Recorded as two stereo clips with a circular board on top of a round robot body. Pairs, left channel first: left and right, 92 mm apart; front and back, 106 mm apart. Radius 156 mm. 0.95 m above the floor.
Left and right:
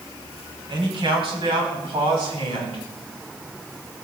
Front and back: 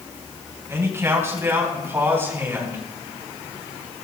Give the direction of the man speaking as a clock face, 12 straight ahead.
4 o'clock.